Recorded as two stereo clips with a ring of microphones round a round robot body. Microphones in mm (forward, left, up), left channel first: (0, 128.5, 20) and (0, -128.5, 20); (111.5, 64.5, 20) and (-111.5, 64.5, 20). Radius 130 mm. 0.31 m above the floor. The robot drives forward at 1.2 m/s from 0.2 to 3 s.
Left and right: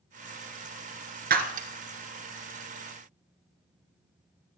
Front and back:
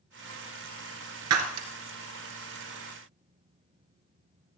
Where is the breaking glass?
145° right, 1.8 m; by 1.7 s 155° right, 2 m.